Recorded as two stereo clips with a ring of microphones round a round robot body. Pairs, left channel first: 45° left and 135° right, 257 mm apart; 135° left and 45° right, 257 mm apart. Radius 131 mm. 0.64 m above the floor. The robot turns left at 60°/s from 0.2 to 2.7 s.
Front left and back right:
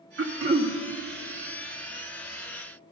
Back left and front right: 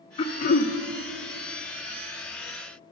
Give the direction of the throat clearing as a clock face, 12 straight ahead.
5 o'clock.